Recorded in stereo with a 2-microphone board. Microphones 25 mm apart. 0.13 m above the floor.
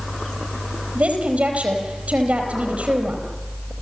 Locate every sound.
0.9 s a woman speaking: 65° right (ahead or behind), 4.5 m